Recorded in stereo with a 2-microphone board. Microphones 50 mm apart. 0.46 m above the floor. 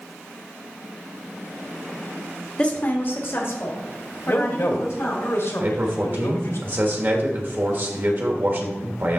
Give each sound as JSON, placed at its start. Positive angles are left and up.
{"t": 2.6, "sound": "a woman speaking", "side_deg": 25, "distance_m": 1.0}
{"t": 4.3, "sound": "a man speaking", "side_deg": 60, "distance_m": 1.7}
{"t": 5.6, "sound": "a man speaking", "side_deg": -45, "distance_m": 1.4}